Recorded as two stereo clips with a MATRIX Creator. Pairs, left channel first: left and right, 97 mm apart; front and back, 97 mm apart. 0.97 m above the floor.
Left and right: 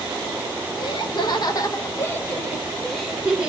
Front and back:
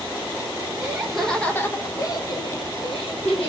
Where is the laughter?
105° left, 1.4 m; by 3.5 s 10° right, 2 m.